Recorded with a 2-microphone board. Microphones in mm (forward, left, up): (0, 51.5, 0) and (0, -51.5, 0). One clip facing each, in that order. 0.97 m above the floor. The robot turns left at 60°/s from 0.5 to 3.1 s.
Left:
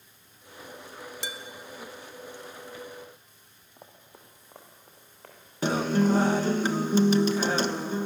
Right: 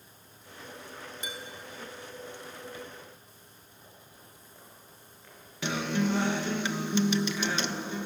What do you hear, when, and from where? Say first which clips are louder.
1.2 s dishes clattering: left 2 dB; 85° left, 1.2 m
3.8 s running footsteps: left 5 dB; 70° left (ahead or behind), 4.5 m; by 5.4 s 60° left (ahead or behind), 5 m
5.6 s a guitar: left 5 dB; 40° left (ahead or behind), 1.1 m